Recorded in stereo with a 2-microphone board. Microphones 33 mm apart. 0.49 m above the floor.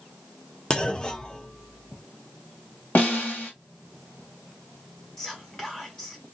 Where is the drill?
No drill in this recording.